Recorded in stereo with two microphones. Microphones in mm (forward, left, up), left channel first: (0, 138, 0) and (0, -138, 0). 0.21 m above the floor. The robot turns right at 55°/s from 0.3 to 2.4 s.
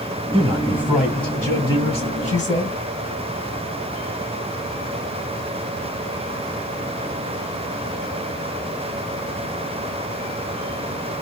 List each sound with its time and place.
0.3 s a man speaking: 15° right (ahead or behind), 1.6 m; by 2.8 s 25° left (ahead or behind), 1.6 m